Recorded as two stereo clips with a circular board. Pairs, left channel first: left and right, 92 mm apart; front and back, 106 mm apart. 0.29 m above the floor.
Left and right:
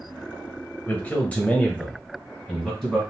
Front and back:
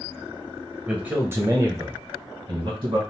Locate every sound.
0.9 s a man speaking: 115° left, 0.9 m; by 3.0 s 175° left, 1.5 m